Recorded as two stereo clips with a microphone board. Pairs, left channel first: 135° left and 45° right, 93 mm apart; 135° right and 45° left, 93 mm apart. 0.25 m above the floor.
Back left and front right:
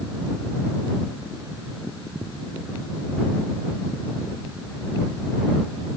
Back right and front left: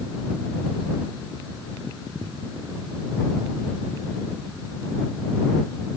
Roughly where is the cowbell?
I don't hear a cowbell.